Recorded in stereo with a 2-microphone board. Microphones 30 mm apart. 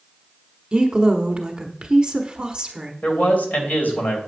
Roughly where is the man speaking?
Left.